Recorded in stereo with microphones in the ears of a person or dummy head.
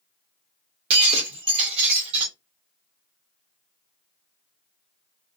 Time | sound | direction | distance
0.9 | breaking glass | 30° right (ahead or behind) | 1.6 m